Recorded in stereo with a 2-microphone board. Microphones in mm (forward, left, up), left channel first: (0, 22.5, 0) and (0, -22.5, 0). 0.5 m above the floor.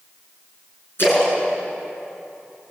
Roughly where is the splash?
Left.